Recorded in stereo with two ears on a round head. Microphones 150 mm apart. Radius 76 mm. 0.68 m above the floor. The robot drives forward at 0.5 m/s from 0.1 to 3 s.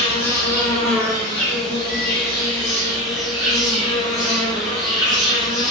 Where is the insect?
20° left (ahead or behind), 0.9 m; by 5.7 s 10° left (ahead or behind), 2.5 m.